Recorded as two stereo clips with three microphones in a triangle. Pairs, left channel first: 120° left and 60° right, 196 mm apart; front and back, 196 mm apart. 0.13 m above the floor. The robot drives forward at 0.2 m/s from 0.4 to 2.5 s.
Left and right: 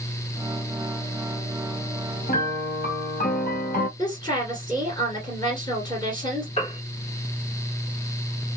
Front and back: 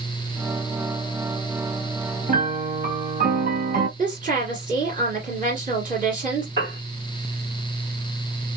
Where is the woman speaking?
Straight behind, 1.8 m.